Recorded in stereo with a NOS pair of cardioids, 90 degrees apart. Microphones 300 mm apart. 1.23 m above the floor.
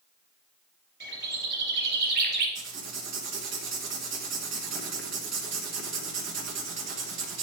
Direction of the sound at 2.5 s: 60° right.